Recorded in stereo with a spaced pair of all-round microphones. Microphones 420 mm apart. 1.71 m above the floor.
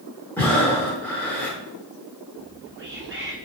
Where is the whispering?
30° right (ahead or behind), 0.7 m.